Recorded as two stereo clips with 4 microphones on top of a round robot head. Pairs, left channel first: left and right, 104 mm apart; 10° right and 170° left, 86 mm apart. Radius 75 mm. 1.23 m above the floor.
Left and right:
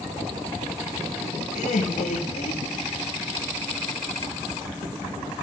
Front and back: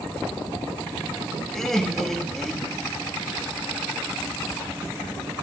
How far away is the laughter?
About 1.8 m.